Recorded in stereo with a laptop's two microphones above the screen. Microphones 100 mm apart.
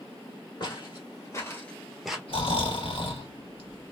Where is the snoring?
65° left (ahead or behind), 1.5 m.